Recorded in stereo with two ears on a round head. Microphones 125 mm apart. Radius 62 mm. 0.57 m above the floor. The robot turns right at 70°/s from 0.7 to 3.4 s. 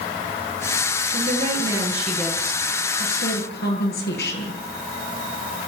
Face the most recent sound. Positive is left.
turn(degrees=95)